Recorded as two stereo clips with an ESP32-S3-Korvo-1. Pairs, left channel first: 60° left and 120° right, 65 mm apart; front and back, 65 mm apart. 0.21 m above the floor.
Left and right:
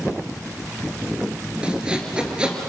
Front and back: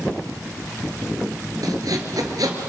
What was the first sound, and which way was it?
Sawing, 165° left.